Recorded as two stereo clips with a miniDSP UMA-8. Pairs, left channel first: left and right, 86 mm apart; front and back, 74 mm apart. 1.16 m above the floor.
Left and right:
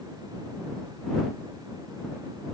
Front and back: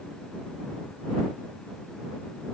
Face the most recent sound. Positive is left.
No sound to turn to.